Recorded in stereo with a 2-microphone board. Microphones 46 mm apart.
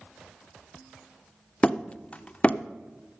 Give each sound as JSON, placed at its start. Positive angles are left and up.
{"t": 1.6, "sound": "hammering", "side_deg": 30, "distance_m": 0.5}